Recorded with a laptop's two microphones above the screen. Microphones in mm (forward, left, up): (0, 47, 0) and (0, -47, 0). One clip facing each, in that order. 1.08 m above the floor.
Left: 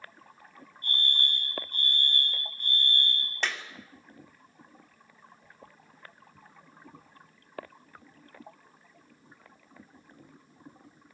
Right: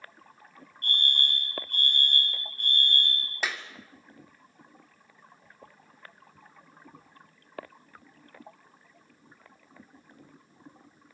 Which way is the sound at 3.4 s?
5° right (ahead or behind).